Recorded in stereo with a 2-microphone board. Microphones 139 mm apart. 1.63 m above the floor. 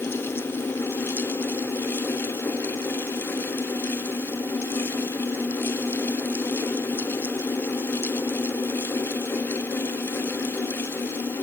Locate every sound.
Only background noise.